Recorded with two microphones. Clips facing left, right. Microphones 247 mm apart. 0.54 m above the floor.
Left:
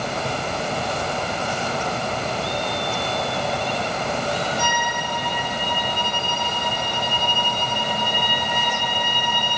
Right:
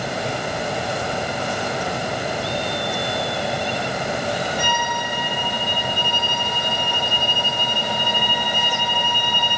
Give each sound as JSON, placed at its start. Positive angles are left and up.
{"t": 4.6, "sound": "a violin", "side_deg": 25, "distance_m": 2.5}